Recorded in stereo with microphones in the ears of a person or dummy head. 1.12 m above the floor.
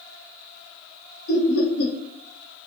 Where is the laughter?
55° left (ahead or behind), 1.3 m.